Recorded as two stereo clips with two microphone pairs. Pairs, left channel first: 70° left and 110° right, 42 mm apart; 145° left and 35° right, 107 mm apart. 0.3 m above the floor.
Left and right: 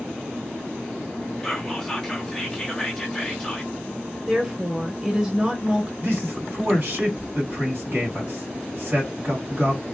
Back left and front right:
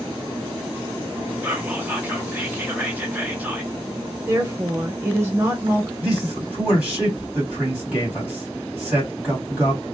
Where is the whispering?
5° left, 0.9 m.